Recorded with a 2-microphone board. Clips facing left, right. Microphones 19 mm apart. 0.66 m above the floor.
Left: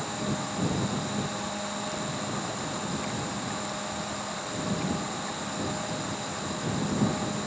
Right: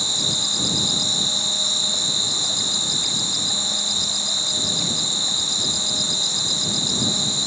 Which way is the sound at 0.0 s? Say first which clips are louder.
Right 11 dB; 70° right (ahead or behind).